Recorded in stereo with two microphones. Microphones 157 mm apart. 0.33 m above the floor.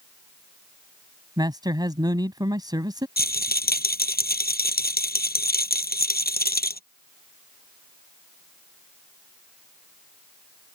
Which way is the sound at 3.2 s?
85° left.